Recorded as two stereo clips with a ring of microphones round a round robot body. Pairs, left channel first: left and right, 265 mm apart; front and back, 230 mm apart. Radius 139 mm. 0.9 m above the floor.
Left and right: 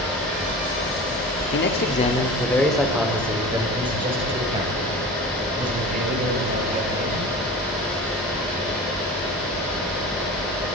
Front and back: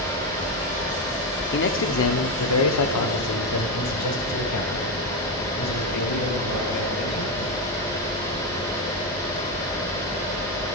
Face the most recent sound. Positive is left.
turn(degrees=-30)